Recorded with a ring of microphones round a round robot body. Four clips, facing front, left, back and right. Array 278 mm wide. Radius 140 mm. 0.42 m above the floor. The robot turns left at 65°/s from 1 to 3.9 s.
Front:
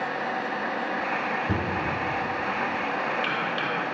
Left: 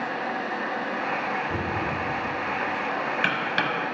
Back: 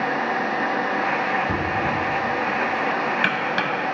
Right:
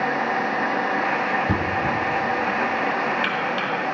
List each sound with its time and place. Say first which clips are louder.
1.5 s knocking: right 5 dB, back 4 dB; 85° right, 1.7 m; by 3.7 s 130° left, 1.7 m